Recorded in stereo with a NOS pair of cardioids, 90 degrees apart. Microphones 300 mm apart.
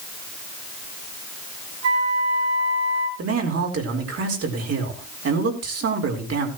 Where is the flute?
65° right, 9 m.